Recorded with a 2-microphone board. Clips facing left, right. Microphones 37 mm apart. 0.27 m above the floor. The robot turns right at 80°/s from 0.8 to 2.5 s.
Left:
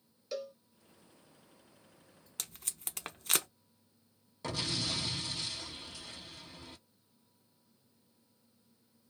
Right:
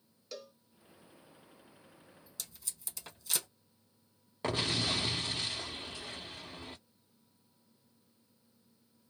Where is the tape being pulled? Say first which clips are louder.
Left 3 dB; 60° left (ahead or behind), 0.6 m; by 3.5 s 65° left (ahead or behind), 0.6 m.